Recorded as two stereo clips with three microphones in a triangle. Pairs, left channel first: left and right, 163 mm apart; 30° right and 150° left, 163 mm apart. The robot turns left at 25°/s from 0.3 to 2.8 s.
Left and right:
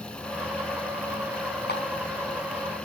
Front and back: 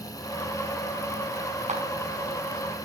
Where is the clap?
105° left, 4 m; by 1.8 s 100° left, 4 m.